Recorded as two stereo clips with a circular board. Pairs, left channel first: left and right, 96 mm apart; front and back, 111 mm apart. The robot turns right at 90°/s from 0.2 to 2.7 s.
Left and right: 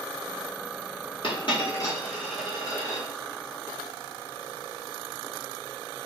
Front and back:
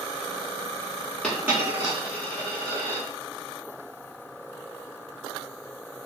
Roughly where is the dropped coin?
Left.